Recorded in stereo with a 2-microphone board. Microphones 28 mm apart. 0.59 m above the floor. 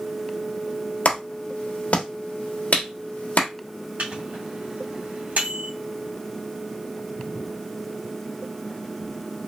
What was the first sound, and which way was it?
A clap, 65° left (ahead or behind).